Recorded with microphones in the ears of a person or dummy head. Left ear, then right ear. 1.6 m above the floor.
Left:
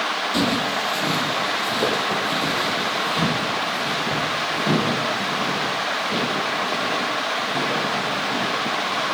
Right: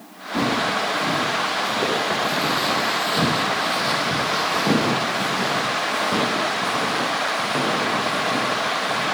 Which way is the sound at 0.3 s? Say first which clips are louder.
Right 6 dB; 45° left (ahead or behind).